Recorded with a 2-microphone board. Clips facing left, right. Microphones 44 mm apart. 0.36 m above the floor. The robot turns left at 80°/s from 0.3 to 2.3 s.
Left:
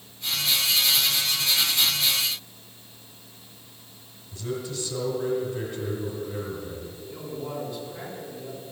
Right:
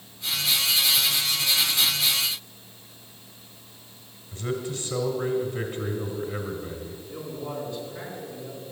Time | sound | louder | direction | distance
4.3 | a man speaking | right 2 dB | 30° right (ahead or behind) | 1.7 m
7.1 | a man speaking | even | 10° left (ahead or behind) | 4.5 m